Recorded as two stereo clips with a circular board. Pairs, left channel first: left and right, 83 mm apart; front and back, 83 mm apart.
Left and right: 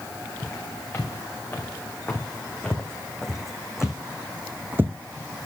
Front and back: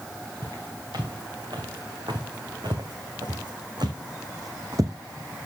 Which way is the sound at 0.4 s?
150° left.